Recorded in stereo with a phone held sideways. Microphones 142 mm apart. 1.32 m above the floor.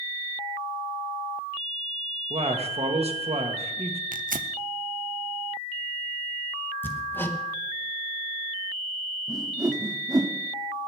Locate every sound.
2.3 s a man speaking: 45° right (ahead or behind), 1.4 m
4.1 s tearing paper: 70° right (ahead or behind), 0.5 m
6.8 s hammering: 15° left (ahead or behind), 1.1 m
9.3 s a whoosh: 25° right (ahead or behind), 0.9 m